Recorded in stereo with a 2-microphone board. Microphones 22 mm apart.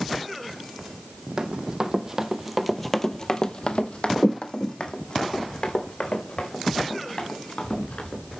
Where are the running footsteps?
40° right (ahead or behind), 1.2 m; by 8.2 s 65° left (ahead or behind), 3.5 m.